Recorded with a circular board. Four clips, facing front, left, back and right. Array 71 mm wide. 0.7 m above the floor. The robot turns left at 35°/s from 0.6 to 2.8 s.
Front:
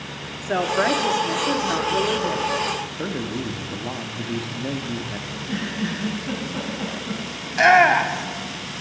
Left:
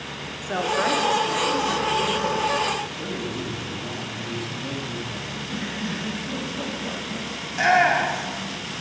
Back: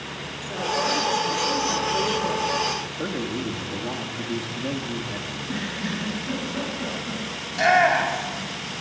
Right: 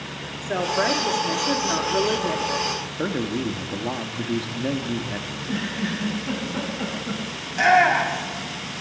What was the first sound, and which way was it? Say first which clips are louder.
A woman speaking: right 1 dB, front 5 dB; 10° left.